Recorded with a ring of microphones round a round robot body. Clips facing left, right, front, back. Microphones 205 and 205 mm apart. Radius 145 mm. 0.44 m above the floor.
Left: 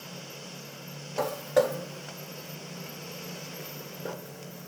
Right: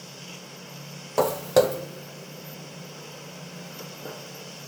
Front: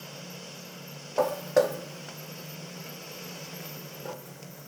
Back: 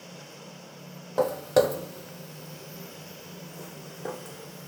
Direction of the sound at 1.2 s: 105° right.